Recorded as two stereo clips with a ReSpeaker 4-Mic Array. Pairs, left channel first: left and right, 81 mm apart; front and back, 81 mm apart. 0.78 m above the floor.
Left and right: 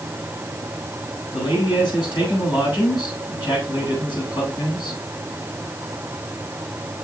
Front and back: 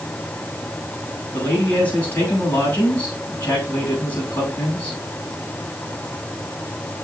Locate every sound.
1.3 s a man speaking: 70° left, 6 m